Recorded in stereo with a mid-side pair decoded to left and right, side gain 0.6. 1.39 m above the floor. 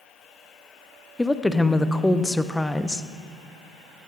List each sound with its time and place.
1.2 s a woman speaking: 5° left, 0.6 m